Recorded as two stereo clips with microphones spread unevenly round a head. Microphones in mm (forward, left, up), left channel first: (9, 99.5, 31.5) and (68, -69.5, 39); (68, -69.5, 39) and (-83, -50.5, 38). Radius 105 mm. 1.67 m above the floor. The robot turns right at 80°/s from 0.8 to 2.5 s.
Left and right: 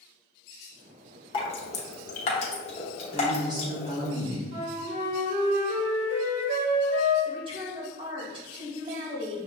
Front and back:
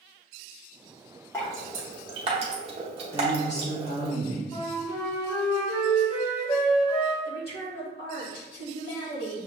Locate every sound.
1.3 s dripping: 60° left, 0.8 m; by 4.1 s 155° left, 0.8 m
3.1 s a woman speaking: 5° right, 2 m
4.5 s a flute: 50° right, 2 m
7.2 s a woman speaking: 10° right, 1.9 m